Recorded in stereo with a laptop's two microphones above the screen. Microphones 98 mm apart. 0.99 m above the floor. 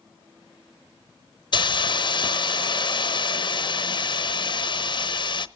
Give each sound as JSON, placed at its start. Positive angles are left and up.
{"t": 1.5, "sound": "a hiss", "side_deg": 55, "distance_m": 0.6}